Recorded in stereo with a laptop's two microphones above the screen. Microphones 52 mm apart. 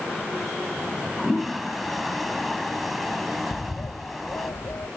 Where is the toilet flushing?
Centre (ahead or behind).